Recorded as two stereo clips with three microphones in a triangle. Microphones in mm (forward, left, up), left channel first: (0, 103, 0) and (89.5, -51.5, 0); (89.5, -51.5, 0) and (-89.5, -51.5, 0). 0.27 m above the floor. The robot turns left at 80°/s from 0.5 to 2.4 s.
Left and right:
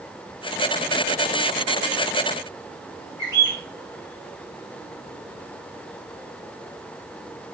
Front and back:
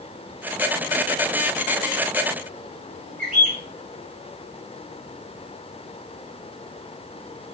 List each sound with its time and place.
3.2 s a bird: 135° right, 5 m